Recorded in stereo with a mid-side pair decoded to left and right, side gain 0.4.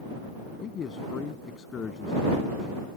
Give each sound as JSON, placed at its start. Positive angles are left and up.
{"t": 0.6, "sound": "a man speaking", "azimuth_deg": 55}